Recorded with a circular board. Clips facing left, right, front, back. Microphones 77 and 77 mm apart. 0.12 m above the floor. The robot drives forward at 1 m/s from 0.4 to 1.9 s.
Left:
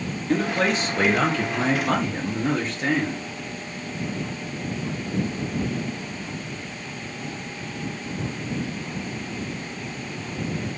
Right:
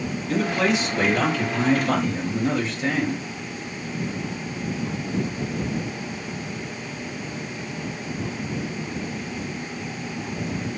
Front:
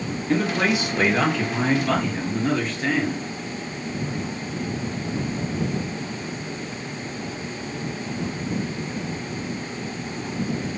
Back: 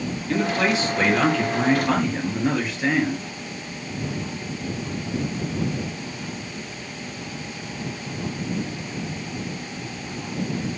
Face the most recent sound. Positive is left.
turn(degrees=110)